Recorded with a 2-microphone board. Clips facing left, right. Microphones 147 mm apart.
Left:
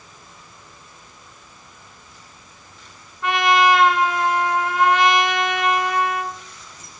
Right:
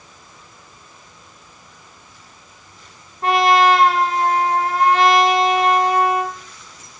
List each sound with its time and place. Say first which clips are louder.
3.2 s a trumpet: right 3 dB; 45° right (ahead or behind), 0.8 m